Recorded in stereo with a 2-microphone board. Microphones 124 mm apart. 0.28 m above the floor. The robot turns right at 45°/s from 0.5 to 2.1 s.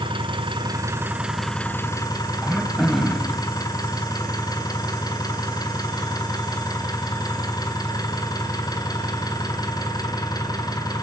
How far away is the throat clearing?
About 2 m.